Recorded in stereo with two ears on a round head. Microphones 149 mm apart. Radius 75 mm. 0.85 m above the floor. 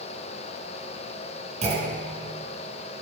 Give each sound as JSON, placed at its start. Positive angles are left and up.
{"t": 1.6, "sound": "a clunk", "side_deg": -40, "distance_m": 1.8}